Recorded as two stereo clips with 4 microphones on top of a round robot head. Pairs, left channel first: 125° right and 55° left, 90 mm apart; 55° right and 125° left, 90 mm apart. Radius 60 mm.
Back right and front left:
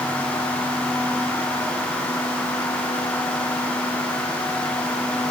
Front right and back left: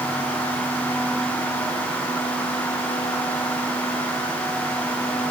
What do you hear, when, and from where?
Only background noise.